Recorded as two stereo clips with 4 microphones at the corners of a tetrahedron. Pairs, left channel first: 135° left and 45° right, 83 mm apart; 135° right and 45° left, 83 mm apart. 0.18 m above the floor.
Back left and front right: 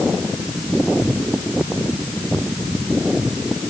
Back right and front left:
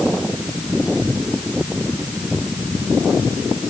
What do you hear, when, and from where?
Only background noise.